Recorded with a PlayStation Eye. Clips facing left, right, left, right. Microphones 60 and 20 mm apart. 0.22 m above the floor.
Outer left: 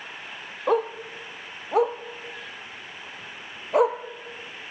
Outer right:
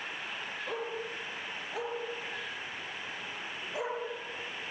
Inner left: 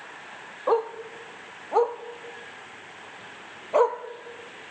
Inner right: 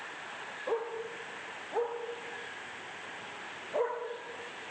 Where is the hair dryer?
No hair dryer in this recording.